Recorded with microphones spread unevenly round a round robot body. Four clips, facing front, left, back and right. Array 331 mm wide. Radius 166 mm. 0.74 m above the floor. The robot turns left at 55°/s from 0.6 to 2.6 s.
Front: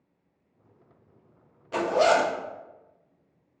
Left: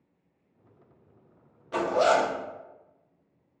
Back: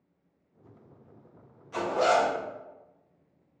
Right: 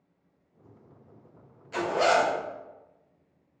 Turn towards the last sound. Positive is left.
turn(degrees=-10)